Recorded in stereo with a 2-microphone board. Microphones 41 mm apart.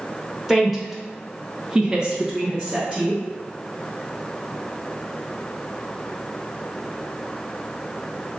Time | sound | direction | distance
0.5 | a woman speaking | 5° right (ahead or behind) | 1.3 m